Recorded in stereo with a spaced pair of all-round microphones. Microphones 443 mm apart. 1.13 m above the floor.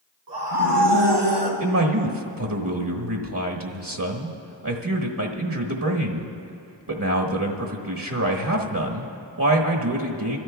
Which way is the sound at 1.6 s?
45° right (ahead or behind).